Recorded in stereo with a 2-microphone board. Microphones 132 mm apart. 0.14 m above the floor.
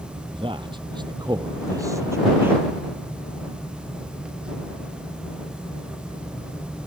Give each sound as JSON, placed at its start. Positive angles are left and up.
{"t": 0.3, "sound": "a man speaking", "side_deg": -40}